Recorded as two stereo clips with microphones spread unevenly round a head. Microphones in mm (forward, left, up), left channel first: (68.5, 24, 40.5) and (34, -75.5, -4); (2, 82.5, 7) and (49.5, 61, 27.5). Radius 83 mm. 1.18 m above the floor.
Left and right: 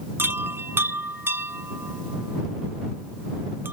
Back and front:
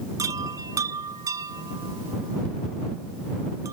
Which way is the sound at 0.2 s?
35° right.